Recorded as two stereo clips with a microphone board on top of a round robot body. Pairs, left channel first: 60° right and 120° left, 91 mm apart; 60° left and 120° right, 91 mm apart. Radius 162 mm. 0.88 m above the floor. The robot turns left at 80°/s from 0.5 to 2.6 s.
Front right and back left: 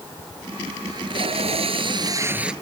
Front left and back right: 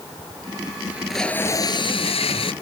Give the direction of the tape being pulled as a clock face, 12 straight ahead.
6 o'clock.